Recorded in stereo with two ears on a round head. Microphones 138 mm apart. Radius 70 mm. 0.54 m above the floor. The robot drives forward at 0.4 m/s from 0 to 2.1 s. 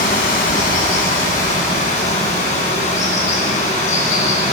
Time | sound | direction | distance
0.0 | running water | 65° left (ahead or behind) | 3 m